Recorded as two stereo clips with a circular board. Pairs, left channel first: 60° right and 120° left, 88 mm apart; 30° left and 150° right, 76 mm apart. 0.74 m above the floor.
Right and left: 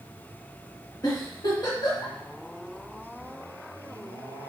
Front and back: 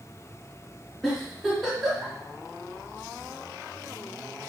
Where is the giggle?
55° right, 1.4 m.